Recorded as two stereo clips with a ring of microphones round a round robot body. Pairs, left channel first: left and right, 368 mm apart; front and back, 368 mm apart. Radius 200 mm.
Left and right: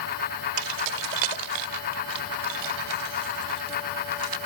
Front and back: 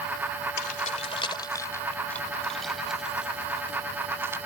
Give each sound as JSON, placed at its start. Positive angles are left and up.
{"t": 0.6, "sound": "keys jangling", "azimuth_deg": -70}